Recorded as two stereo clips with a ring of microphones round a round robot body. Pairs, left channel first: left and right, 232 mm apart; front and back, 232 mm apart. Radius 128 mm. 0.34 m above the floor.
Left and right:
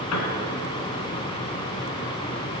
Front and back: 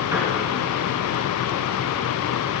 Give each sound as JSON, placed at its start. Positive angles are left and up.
{"t": 0.1, "sound": "a piano", "azimuth_deg": 100, "distance_m": 1.8}